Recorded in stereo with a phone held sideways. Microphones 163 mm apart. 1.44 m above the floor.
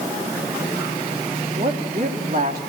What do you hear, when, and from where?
1.6 s a woman speaking: 65° right (ahead or behind), 2.5 m